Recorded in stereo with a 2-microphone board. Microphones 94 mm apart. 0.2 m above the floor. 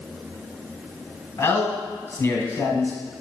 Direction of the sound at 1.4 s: 25° left (ahead or behind).